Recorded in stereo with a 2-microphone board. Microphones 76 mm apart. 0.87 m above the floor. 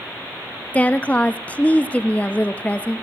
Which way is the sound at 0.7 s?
20° left (ahead or behind).